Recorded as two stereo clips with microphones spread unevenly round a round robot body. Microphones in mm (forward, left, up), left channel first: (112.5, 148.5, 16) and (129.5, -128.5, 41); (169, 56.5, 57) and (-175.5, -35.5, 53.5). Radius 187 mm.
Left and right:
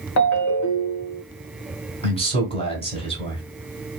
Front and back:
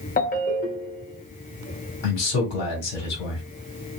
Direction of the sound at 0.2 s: 85° left.